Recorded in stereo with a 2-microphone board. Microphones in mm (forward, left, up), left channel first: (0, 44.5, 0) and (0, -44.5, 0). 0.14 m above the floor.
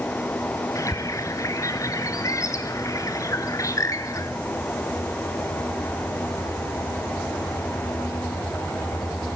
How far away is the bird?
About 1.6 m.